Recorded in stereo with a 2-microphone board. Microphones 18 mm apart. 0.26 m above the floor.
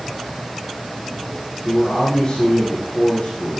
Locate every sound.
1.6 s a man speaking: 75° left (ahead or behind), 6.5 m